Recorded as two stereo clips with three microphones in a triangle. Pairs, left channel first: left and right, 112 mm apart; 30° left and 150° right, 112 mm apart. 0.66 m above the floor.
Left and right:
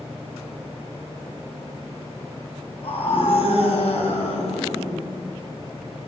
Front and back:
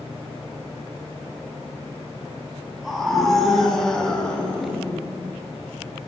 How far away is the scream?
About 7 m.